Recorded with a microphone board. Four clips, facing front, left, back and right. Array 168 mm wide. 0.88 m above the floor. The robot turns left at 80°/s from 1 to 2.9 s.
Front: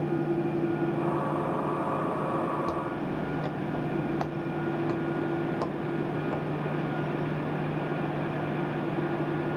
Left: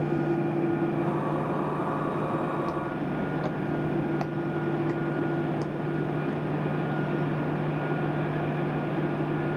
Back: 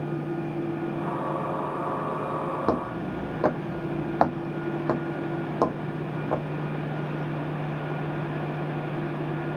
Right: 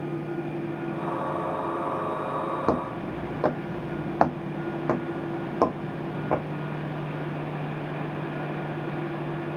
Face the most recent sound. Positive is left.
turn(degrees=-120)